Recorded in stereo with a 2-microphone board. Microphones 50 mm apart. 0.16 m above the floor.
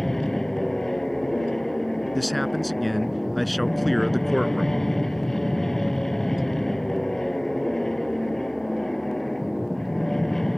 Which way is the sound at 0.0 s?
5° left (ahead or behind).